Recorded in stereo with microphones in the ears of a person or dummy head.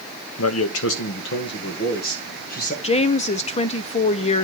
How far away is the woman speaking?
About 0.5 m.